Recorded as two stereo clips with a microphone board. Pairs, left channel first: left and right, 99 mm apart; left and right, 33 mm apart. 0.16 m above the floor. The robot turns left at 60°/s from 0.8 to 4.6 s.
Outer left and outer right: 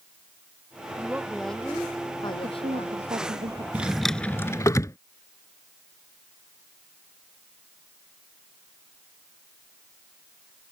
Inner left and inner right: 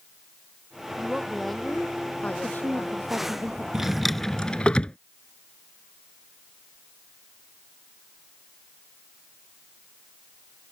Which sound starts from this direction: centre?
A drawer, at 3.7 s.